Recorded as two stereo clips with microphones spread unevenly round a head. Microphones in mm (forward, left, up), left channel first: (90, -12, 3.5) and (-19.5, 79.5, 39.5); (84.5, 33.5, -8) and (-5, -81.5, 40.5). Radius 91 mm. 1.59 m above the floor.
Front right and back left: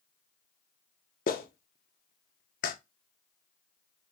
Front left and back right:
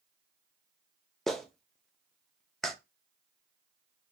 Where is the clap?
55° right, 0.7 m.